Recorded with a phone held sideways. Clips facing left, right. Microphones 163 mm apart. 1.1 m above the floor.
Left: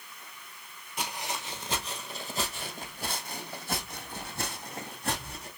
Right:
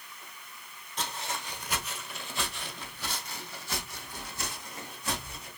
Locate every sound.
1.0 s footsteps: 10° left (ahead or behind), 1.1 m; by 5.5 s 65° left (ahead or behind), 3 m